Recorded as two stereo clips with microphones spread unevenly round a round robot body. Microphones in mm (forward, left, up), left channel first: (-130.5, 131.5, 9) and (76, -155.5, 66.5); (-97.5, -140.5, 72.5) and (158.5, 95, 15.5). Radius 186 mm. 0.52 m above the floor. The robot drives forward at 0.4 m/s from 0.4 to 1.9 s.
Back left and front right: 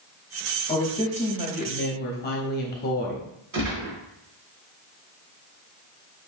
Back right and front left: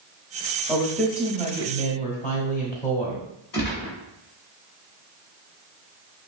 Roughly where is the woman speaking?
Left.